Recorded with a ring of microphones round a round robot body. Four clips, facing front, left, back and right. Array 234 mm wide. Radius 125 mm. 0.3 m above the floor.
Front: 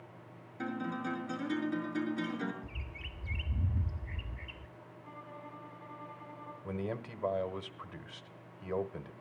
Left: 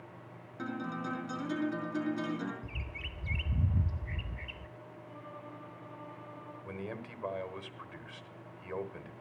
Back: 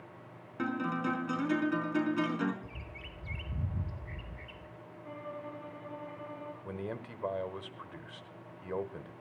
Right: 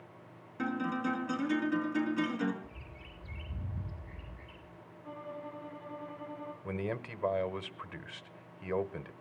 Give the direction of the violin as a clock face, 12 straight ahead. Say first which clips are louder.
Right 7 dB, back 7 dB; 5 o'clock.